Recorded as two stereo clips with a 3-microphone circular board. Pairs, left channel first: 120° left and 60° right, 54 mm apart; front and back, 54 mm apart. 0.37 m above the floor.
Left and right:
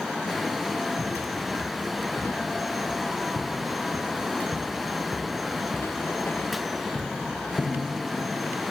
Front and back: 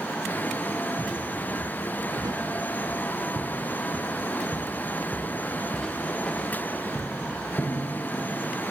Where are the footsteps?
175° right, 6 m; by 8.3 s 55° left, 6.5 m.